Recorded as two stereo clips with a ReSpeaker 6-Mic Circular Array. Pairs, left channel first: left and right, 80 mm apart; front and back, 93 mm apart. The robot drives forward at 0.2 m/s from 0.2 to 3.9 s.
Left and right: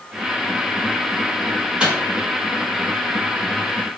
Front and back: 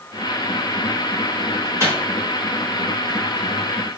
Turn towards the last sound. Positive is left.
turn(degrees=-165)